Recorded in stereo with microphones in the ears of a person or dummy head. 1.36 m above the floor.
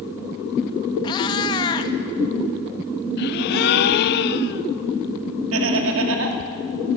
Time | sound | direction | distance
1.0 | a cat meowing | 30° left (ahead or behind) | 0.9 m
3.2 | a gasp | 60° left (ahead or behind) | 0.6 m
5.5 | laughter | 80° right | 2.5 m